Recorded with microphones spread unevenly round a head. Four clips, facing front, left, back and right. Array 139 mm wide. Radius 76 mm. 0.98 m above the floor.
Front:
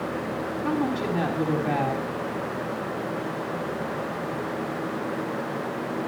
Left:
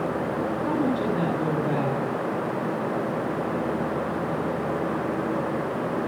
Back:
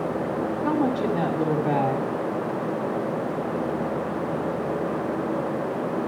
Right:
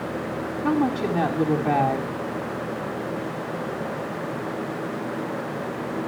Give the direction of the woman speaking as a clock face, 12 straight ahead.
5 o'clock.